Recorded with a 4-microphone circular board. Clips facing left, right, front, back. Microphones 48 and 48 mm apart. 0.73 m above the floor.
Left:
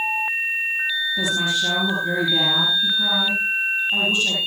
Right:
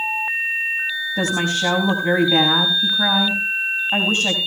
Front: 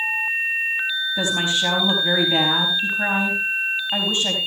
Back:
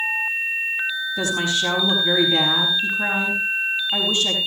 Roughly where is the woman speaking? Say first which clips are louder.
Right 4 dB, even; ahead right.